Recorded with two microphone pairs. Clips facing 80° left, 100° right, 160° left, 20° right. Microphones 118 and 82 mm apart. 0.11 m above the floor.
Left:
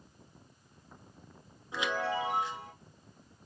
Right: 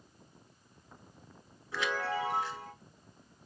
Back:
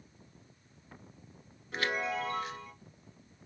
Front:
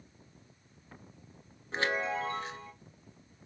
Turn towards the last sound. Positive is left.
turn(degrees=20)